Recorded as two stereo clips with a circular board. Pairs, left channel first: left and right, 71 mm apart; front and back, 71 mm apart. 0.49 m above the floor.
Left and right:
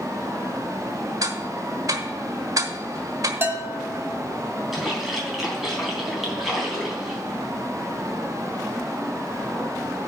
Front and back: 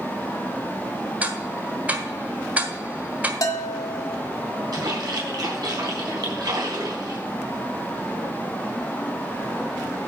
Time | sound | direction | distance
1.2 | ticking | 115° right | 1.2 m
3.4 | a bell | 30° right | 1.5 m
4.7 | a splash | 175° right | 3.5 m